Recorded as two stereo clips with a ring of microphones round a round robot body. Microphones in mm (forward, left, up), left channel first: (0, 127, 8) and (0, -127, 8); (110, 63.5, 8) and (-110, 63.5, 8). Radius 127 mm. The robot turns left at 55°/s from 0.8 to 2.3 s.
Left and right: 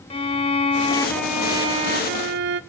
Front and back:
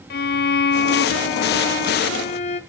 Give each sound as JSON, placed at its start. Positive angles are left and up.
{"t": 0.1, "sound": "a violin", "azimuth_deg": 25, "distance_m": 0.9}